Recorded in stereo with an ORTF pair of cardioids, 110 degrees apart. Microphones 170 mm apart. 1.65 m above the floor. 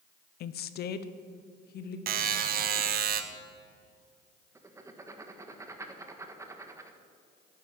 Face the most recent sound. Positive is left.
turn(degrees=-15)